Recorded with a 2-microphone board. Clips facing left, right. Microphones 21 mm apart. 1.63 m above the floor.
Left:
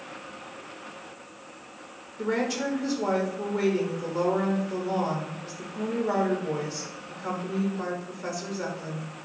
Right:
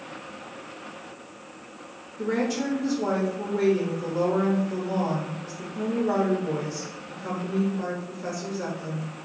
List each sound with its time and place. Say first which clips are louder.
2.2 s a woman speaking: right 1 dB; 5° left (ahead or behind), 0.9 m